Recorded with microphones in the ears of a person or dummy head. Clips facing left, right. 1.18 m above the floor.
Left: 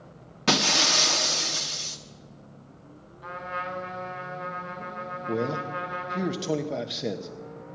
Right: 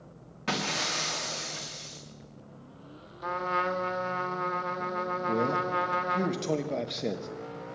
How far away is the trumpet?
About 1.2 m.